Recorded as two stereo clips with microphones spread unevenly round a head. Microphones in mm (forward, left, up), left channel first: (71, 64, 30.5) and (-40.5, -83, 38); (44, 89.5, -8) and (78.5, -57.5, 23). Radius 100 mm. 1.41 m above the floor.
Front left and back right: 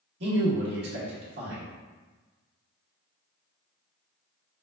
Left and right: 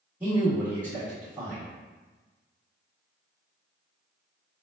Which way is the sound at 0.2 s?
160° right.